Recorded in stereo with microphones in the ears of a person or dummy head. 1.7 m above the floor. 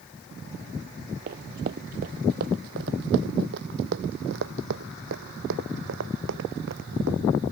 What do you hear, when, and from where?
1.3 s running footsteps: 40° right (ahead or behind); by 7.2 s 65° right (ahead or behind)